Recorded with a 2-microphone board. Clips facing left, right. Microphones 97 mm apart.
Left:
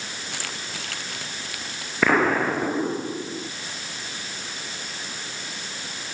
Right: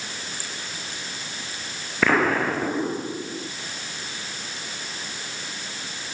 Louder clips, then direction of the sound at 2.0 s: Left 1 dB; 5° left (ahead or behind).